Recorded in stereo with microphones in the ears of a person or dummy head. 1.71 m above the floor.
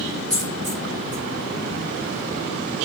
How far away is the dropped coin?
About 1.9 m.